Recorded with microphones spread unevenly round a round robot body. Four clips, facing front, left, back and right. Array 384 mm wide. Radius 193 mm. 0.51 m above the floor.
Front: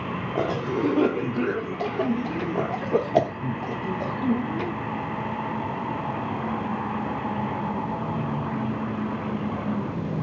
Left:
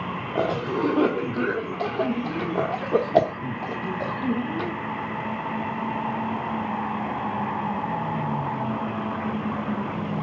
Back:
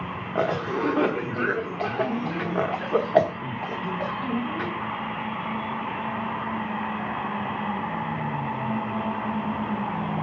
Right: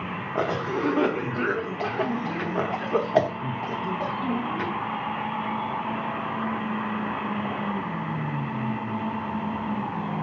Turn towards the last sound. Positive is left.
turn(degrees=25)